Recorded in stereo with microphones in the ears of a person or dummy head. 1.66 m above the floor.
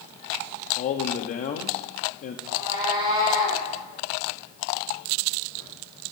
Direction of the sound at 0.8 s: 45° left (ahead or behind).